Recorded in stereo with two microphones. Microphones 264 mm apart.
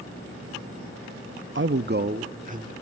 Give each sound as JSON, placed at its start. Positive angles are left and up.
{"t": 1.6, "sound": "a man speaking", "side_deg": -50, "distance_m": 0.6}